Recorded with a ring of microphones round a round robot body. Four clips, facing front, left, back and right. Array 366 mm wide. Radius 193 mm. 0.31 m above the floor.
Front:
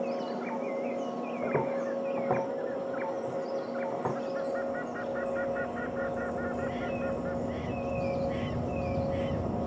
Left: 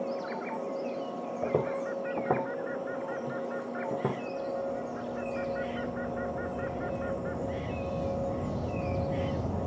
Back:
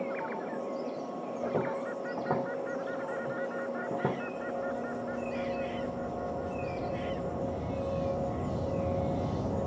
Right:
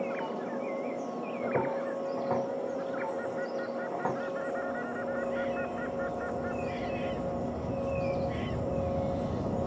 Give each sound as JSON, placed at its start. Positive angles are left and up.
{"t": 1.4, "sound": "footsteps", "azimuth_deg": 75, "distance_m": 1.7}